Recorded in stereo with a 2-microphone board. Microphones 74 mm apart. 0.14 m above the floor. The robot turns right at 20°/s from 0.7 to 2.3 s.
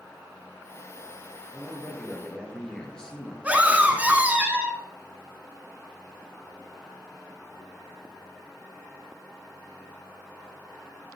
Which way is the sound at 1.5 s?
5° right (ahead or behind).